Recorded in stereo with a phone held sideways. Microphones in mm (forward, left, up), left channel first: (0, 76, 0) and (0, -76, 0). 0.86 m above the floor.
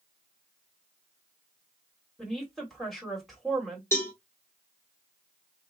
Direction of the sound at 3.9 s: 15° left (ahead or behind).